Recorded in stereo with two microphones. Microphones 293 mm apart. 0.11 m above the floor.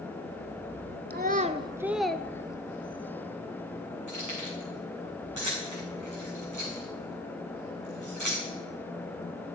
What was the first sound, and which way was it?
A child speaking, 35° right (ahead or behind).